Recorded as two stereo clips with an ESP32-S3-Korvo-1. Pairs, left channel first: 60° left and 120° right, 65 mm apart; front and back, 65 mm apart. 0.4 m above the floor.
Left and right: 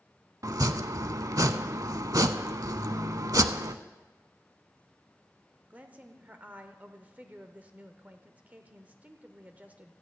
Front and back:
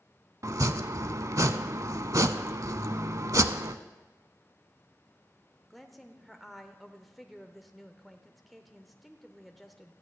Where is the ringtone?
115° left, 1.0 m.